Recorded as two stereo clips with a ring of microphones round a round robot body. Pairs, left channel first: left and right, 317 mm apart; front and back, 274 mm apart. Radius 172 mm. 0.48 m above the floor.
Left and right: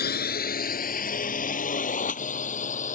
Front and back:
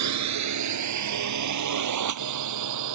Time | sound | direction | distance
0.0 | a drone | 155° left | ?